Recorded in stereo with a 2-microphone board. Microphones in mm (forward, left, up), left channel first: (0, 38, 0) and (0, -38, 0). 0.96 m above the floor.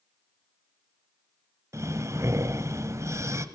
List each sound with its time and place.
1.7 s breathing: 40° right (ahead or behind), 1.1 m